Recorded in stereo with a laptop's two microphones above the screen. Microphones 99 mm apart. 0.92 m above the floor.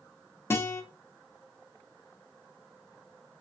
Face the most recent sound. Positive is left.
turn(degrees=25)  # may be behind; listen again after turning